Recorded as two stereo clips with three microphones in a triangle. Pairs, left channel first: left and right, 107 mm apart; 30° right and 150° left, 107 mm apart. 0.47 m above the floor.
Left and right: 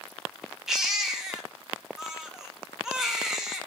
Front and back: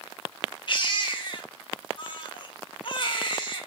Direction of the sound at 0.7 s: 5° right.